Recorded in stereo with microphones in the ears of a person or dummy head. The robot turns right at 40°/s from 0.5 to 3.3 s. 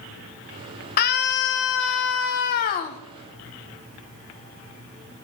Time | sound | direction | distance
1.0 | a scream | 60° left | 1.1 m